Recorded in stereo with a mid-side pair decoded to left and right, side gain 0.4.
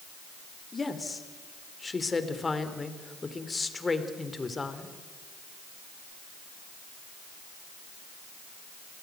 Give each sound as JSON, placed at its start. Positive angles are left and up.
{"t": 0.7, "sound": "a woman speaking", "azimuth_deg": 30, "distance_m": 3.5}